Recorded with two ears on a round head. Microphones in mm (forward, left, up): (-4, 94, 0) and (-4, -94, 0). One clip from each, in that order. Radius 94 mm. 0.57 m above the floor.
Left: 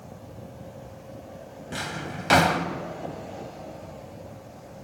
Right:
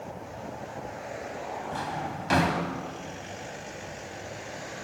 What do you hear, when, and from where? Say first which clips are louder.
1.7 s a drawer: left 4 dB; 30° left (ahead or behind), 1.2 m